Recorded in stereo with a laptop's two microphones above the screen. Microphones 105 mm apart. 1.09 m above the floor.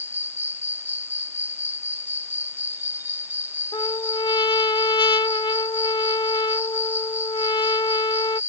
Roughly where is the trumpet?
Left.